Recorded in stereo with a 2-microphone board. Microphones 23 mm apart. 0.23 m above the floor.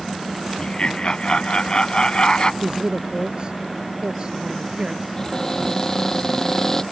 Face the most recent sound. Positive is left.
turn(degrees=20)  # may be behind; listen again after turning